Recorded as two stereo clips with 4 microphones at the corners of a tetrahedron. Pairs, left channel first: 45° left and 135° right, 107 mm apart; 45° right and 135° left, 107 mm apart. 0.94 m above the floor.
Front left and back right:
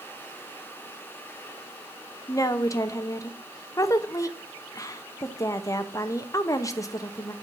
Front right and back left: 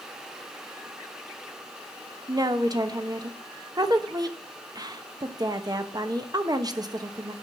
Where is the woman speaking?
95° left, 1.0 m.